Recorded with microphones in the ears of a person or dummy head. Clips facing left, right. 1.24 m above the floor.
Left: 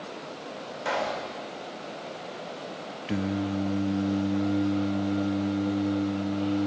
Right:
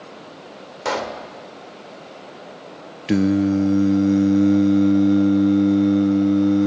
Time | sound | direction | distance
0.8 | a pop | 65° right (ahead or behind) | 2 m
3.1 | singing | 60° right (ahead or behind) | 0.5 m